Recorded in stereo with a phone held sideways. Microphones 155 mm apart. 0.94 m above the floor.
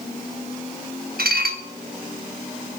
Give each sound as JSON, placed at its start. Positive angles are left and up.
{"t": 1.2, "sound": "dishes clattering", "side_deg": -80, "distance_m": 0.8}